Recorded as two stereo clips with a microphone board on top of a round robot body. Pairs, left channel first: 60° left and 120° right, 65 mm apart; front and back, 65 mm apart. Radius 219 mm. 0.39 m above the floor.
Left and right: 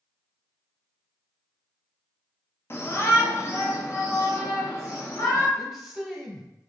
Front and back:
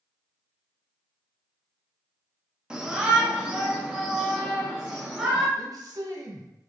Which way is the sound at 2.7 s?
105° left.